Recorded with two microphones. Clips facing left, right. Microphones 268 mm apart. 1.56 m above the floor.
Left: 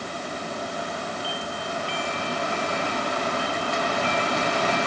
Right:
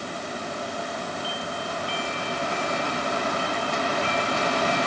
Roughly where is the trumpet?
I don't hear a trumpet.